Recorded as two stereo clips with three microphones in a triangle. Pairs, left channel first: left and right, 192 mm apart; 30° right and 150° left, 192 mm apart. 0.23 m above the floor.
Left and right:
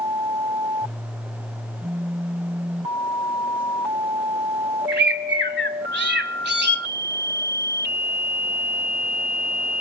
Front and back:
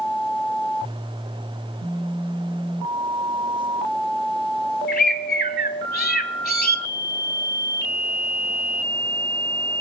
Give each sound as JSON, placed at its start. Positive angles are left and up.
{"t": 4.9, "sound": "a bird", "azimuth_deg": -70, "distance_m": 0.8}